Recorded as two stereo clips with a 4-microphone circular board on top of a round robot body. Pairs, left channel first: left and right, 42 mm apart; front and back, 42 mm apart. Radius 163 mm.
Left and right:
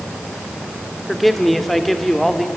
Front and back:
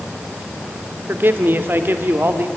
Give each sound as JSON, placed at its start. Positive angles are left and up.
{"t": 1.1, "sound": "a man speaking", "azimuth_deg": 175, "distance_m": 1.9}